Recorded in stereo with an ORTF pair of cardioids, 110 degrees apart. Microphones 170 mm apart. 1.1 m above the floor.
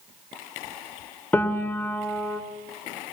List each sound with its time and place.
1.3 s a piano: 10° left, 2.5 m